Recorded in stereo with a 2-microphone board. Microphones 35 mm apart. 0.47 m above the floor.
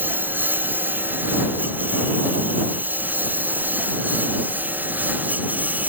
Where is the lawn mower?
75° right (ahead or behind); by 5.9 s 60° right (ahead or behind).